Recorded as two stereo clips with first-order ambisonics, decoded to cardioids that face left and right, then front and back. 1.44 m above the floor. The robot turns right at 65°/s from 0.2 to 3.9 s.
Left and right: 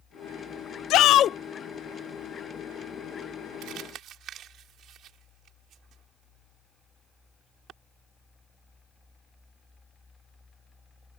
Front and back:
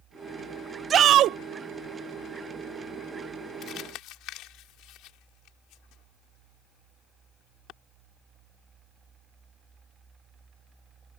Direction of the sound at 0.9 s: 120° left.